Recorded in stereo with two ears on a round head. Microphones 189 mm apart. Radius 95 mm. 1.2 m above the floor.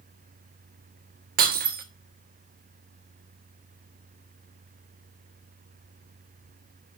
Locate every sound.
1.4 s breaking glass: 40° right (ahead or behind), 1.4 m